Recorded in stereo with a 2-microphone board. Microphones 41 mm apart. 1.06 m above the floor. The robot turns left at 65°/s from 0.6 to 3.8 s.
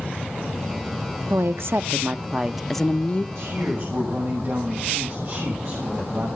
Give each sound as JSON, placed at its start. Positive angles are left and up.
{"t": 1.3, "sound": "a woman speaking", "azimuth_deg": -90, "distance_m": 0.6}
{"t": 3.4, "sound": "a man speaking", "side_deg": -85, "distance_m": 6.0}